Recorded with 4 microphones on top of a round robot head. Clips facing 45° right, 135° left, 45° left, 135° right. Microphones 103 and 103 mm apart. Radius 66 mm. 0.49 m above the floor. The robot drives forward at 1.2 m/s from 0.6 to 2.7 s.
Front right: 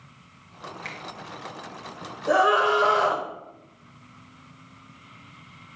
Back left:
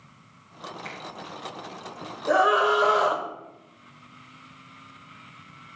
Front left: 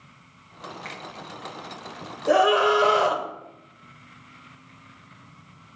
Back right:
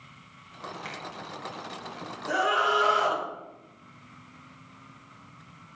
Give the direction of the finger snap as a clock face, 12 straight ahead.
2 o'clock.